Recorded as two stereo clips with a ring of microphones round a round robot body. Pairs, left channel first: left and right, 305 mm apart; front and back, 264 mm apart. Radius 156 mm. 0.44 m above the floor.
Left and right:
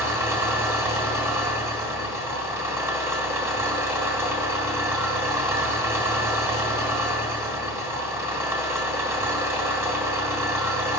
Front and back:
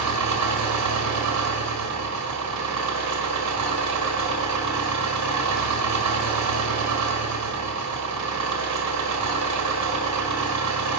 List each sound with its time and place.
0.0 s an engine running: 170° right, 1.6 m